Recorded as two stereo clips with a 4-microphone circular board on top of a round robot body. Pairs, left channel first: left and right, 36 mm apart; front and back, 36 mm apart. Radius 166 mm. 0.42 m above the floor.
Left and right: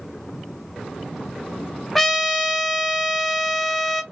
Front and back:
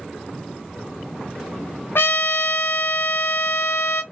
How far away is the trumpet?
About 0.7 m.